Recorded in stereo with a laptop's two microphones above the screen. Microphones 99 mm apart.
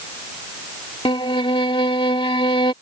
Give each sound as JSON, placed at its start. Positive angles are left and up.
{"t": 1.1, "sound": "a violin", "side_deg": 65}